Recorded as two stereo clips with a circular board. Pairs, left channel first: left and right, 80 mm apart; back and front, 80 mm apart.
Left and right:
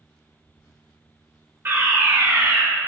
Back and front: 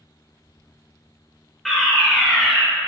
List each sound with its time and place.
1.6 s a fire alarm: 90° right, 2.5 m